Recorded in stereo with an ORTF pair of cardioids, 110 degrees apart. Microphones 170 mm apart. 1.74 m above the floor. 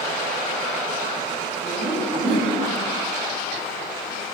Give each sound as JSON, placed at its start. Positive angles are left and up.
{"t": 1.6, "sound": "laughter", "azimuth_deg": -40, "distance_m": 3.0}